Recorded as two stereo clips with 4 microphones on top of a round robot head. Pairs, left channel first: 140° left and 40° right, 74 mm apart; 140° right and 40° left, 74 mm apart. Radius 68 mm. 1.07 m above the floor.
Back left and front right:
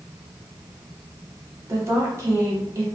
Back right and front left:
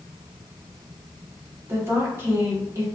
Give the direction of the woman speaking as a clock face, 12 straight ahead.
12 o'clock.